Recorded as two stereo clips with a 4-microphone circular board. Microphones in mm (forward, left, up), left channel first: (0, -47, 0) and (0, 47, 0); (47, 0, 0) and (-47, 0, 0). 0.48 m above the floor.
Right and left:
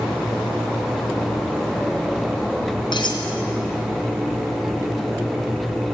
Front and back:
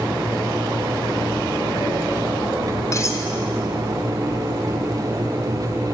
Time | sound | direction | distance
2.9 | cutlery clinking | 55° right | 3 m